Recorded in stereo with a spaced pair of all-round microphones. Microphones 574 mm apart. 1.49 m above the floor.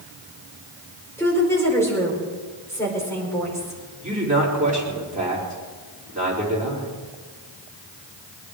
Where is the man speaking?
15° right (ahead or behind), 4.5 m.